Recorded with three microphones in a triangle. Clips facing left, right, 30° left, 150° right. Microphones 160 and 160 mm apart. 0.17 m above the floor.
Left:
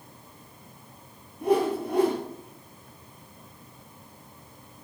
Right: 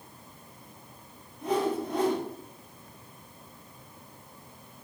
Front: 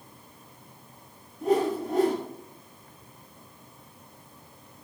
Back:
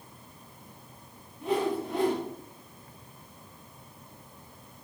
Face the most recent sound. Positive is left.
turn(degrees=70)